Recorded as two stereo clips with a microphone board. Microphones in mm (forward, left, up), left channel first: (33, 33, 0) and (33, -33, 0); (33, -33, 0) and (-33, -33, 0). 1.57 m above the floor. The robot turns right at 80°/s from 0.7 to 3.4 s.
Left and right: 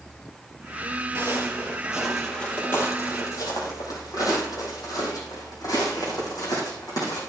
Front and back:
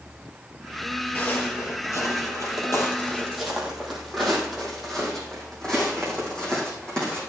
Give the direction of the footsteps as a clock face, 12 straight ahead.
2 o'clock.